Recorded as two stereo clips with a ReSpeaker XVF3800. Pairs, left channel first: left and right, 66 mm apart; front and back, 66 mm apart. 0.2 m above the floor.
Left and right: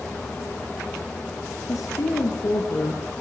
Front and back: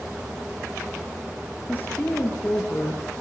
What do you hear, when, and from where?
1.7 s a woman speaking: 65° left, 3.5 m